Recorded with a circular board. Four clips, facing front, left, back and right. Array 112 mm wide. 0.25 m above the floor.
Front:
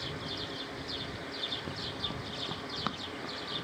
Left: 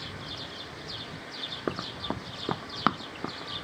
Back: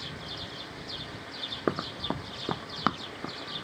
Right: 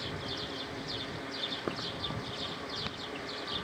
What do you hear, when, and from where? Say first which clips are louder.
1.7 s running footsteps: left 6 dB, back 14 dB; 165° left; by 3.6 s 110° left